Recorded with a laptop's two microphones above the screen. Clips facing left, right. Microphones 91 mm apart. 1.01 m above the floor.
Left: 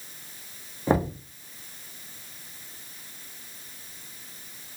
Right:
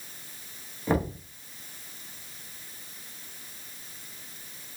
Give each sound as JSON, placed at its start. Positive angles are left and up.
{"t": 0.9, "sound": "knocking", "side_deg": 25, "distance_m": 0.7}